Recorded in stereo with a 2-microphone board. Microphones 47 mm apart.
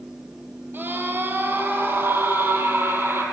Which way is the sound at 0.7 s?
50° right (ahead or behind).